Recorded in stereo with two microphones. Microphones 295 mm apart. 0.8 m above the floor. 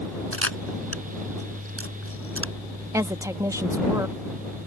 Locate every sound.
0.3 s a camera shutter: 50° right (ahead or behind)
2.9 s a woman speaking: 10° right (ahead or behind)